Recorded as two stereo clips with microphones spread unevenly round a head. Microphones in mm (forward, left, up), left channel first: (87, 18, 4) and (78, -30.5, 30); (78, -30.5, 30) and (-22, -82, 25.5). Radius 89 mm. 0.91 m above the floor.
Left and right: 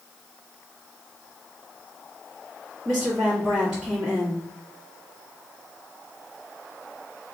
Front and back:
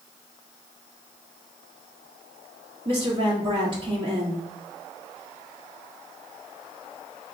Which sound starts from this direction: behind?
A woman speaking, at 2.9 s.